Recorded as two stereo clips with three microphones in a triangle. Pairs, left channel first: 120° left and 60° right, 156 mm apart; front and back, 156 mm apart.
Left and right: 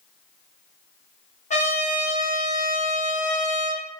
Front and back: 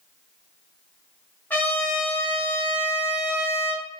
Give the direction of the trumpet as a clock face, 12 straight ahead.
9 o'clock.